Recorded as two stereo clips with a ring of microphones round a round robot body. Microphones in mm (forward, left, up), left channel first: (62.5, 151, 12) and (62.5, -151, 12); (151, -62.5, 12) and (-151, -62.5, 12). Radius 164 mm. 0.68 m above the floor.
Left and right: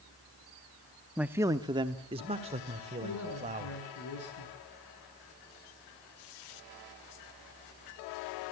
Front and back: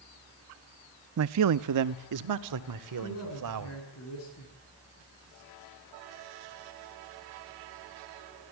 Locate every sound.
1.2 s a man speaking: 175° right, 0.6 m; by 3.8 s 160° right, 3 m
3.0 s a man speaking: 50° left, 7.5 m